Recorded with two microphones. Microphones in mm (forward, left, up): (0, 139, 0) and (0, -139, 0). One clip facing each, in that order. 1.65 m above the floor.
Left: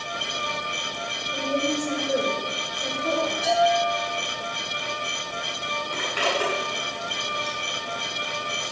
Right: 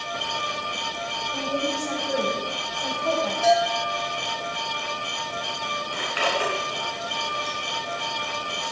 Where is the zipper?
45° left (ahead or behind), 6.5 m.